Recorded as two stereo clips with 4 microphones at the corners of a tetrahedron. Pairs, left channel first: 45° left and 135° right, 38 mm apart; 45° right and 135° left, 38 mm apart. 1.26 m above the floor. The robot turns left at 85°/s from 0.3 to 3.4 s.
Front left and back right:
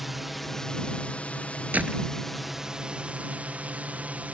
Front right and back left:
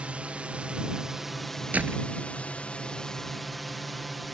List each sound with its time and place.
0.0 s a drone: 140° left; by 4.3 s 135° right
1.7 s a door slam: straight behind; by 2.1 s 150° left